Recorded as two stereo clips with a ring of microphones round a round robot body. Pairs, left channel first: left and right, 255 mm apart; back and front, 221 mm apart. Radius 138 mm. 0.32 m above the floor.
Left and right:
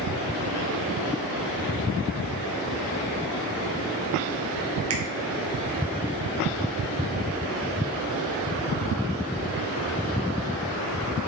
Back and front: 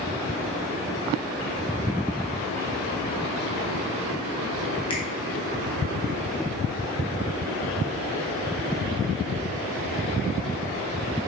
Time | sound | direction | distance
4.9 | a finger snap | 110° right | 2.5 m